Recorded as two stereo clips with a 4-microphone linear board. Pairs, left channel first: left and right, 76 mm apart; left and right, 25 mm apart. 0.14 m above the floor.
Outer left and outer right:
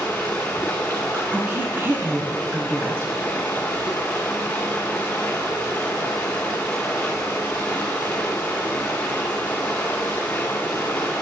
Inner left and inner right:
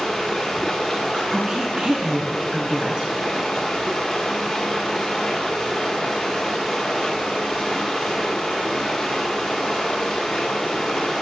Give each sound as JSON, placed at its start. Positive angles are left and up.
{"t": 0.0, "sound": "running water", "side_deg": 25, "distance_m": 2.5}
{"t": 1.1, "sound": "a woman speaking", "side_deg": -35, "distance_m": 1.9}